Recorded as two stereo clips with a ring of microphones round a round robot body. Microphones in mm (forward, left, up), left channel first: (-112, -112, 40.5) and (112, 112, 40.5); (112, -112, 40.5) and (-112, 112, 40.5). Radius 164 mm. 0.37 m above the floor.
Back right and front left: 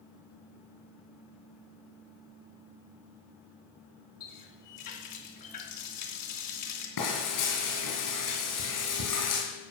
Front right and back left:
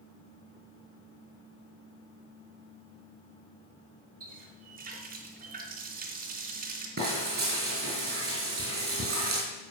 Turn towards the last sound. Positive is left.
turn(degrees=-165)